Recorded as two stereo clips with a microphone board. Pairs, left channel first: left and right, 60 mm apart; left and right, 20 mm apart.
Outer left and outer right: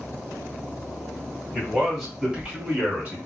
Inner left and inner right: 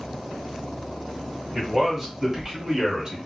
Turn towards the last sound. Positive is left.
turn(degrees=-20)  # may be behind; listen again after turning